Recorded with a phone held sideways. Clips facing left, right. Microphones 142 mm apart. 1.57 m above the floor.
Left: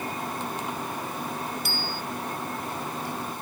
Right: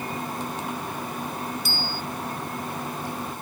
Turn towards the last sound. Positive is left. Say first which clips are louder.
# right 1 dB
turn(degrees=65)  # may be behind; listen again after turning